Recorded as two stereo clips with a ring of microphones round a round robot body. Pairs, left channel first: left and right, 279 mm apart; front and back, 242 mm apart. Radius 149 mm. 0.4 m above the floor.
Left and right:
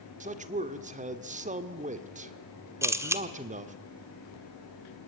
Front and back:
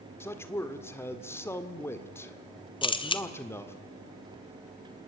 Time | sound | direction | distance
0.2 | a man speaking | 70° right | 1.5 m
2.8 | a camera shutter | 25° right | 1.5 m